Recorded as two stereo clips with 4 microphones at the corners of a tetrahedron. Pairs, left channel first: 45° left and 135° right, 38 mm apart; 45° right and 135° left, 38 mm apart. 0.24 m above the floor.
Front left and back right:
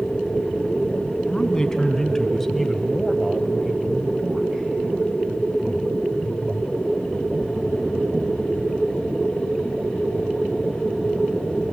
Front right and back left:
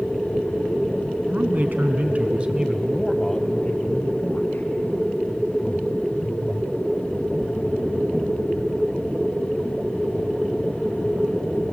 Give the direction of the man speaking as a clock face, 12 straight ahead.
8 o'clock.